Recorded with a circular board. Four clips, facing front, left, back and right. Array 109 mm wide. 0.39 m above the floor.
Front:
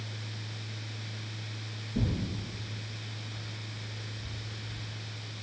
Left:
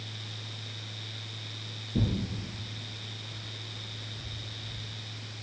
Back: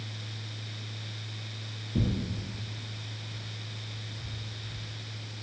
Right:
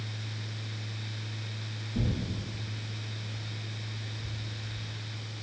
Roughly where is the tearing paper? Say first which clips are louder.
Left 2 dB, back 2 dB; behind left.